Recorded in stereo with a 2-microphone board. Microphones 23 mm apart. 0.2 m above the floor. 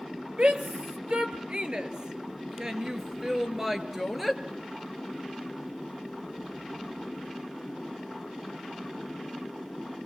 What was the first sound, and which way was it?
A shout, 50° right (ahead or behind).